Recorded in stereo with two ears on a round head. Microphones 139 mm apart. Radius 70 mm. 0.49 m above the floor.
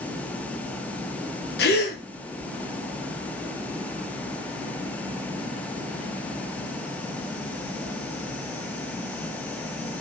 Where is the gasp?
80° left, 3.5 m.